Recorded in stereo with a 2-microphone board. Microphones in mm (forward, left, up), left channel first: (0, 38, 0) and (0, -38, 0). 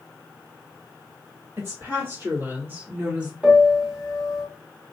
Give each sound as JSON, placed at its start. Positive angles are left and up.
{"t": 1.6, "sound": "a woman speaking", "side_deg": -40, "distance_m": 1.6}
{"t": 3.4, "sound": "a piano", "side_deg": -10, "distance_m": 0.9}